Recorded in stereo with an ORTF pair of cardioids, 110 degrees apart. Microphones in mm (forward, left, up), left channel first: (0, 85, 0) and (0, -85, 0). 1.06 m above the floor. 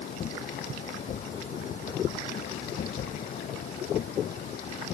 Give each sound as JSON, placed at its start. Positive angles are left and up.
{"t": 0.0, "sound": "a machine running", "azimuth_deg": 50}